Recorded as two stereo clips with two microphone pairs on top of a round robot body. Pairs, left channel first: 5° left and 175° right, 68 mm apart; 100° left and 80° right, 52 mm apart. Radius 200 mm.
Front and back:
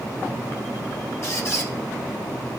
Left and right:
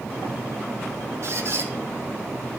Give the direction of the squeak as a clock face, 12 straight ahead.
1 o'clock.